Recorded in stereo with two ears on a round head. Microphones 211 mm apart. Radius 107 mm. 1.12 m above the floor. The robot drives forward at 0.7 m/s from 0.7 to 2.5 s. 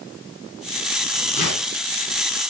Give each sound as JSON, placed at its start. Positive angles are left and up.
{"t": 1.4, "sound": "tearing paper", "side_deg": 35, "distance_m": 9.5}